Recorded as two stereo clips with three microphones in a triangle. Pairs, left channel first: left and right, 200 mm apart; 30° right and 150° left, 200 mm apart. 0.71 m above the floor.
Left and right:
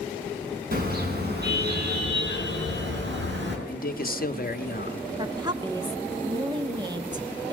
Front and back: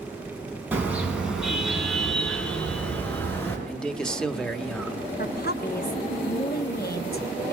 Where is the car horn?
130° right, 4 m; by 3.6 s 110° right, 5 m.